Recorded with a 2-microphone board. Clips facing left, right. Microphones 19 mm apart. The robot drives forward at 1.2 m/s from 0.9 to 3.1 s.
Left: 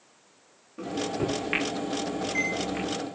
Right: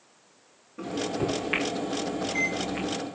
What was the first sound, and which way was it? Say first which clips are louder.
A microwave: even; 10° left (ahead or behind).